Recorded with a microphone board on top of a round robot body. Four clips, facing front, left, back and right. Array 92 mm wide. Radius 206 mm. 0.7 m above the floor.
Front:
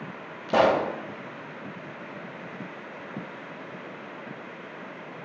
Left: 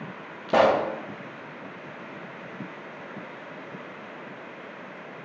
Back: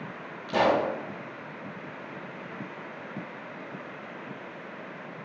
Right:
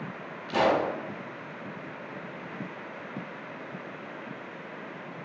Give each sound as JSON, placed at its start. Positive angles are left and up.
{"t": 0.5, "sound": "a pop", "azimuth_deg": 65, "distance_m": 0.7}